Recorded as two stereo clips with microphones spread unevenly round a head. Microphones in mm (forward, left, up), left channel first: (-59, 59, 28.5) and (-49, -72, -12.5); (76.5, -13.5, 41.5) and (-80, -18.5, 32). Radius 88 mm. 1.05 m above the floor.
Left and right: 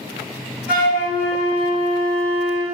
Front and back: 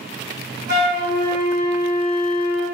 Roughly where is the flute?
Behind left.